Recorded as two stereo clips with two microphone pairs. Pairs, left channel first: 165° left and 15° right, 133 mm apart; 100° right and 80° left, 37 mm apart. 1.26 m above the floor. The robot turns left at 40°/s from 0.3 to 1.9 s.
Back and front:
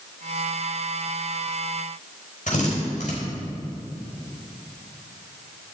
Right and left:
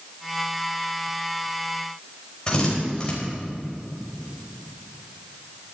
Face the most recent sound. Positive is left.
turn(degrees=-170)